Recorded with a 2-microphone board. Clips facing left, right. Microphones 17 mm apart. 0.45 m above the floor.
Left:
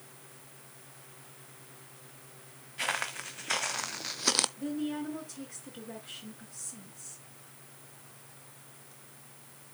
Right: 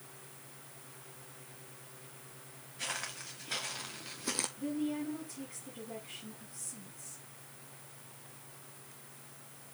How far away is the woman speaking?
About 5 m.